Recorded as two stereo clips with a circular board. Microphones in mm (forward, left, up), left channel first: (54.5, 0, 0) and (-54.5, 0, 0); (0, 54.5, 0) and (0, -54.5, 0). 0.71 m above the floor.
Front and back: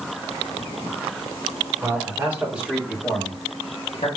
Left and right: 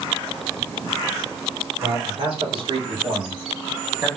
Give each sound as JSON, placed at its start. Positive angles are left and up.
{"t": 1.8, "sound": "a man speaking", "azimuth_deg": -120, "distance_m": 2.5}